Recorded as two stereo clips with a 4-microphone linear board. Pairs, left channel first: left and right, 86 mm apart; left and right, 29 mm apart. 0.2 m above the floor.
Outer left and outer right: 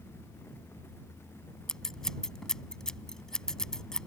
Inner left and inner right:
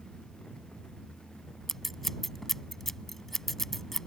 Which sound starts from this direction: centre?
Scissors, at 1.7 s.